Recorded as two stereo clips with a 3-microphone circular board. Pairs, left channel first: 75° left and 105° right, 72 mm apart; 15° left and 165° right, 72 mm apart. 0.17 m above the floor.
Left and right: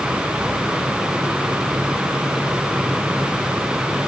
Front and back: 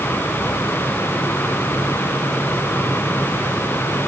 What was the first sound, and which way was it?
Only background noise.